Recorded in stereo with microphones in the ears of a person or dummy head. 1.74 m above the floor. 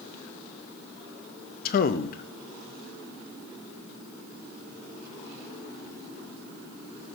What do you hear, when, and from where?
1.6 s a man speaking: 55° left (ahead or behind), 0.8 m